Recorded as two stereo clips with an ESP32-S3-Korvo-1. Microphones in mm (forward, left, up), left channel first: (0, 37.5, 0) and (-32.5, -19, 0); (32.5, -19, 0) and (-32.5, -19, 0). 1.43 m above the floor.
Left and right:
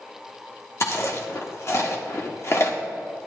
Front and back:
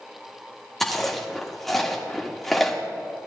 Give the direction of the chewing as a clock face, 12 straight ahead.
9 o'clock.